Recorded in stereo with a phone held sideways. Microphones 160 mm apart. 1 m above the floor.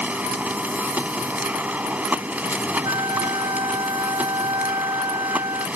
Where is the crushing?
I don't hear crushing.